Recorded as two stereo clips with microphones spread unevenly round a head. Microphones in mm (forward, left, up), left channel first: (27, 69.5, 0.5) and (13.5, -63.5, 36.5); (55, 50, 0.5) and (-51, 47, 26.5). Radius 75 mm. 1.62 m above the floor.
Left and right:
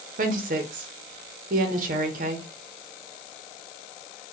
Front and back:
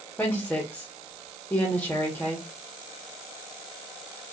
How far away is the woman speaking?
About 1.0 m.